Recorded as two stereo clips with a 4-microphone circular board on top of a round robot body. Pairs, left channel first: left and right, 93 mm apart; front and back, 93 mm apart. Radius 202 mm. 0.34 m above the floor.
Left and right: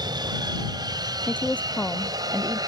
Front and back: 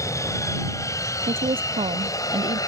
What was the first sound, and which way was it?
An aircraft, 55° right.